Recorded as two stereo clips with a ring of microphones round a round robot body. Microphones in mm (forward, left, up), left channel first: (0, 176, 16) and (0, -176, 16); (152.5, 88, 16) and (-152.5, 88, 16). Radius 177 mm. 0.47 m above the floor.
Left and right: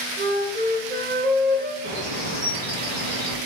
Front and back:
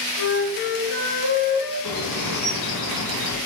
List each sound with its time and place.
0.2 s a flute: 25° right, 4 m
1.8 s a bird: 45° right, 5.5 m